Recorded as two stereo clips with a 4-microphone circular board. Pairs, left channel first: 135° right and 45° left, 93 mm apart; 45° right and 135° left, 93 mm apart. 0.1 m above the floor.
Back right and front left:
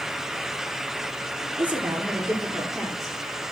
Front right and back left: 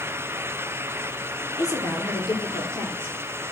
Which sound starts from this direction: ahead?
A woman speaking, at 1.6 s.